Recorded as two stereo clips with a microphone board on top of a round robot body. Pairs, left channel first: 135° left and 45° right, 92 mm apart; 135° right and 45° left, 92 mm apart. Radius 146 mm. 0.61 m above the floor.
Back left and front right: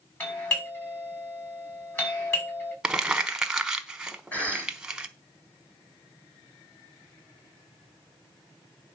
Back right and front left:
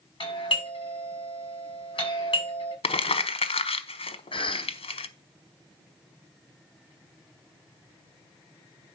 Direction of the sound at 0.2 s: 160° right.